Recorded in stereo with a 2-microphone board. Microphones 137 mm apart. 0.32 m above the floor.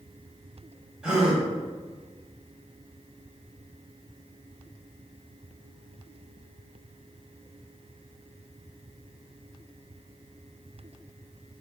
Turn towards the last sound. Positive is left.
turn(degrees=-5)  # may be behind; listen again after turning